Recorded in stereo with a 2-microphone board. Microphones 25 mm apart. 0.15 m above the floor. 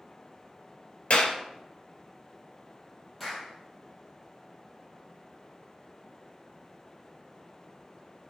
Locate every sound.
1.1 s a clap: 65° left (ahead or behind), 2.0 m
3.2 s a clap: centre (ahead or behind), 4 m